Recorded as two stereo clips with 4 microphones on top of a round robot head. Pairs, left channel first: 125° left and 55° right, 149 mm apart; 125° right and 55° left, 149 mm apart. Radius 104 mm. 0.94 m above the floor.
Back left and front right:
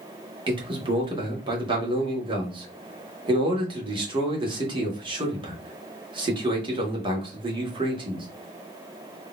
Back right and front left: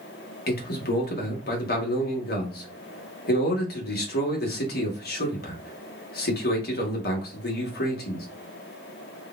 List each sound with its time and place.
0.5 s a man speaking: 115° right, 1.9 m